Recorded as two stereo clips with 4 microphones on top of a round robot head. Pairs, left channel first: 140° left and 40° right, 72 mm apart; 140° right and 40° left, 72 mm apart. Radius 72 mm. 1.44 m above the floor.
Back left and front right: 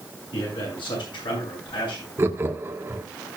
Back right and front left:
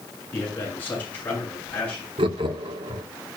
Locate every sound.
0.3 s a man speaking: 155° left, 7.5 m; by 2.1 s 150° left, 8.5 m
2.2 s laughter: 25° left, 1.3 m